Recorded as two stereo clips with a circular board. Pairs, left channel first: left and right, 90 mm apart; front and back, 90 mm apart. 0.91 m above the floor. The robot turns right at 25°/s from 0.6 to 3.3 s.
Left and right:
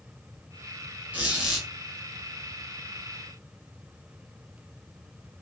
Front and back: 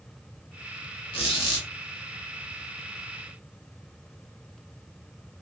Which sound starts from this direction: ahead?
A squeak, at 1.1 s.